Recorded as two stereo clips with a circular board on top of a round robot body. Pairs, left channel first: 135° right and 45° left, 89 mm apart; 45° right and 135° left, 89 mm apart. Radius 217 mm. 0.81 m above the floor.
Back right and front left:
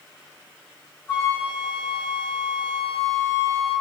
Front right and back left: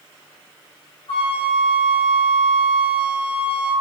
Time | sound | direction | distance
1.1 | a flute | 70° right | 0.8 m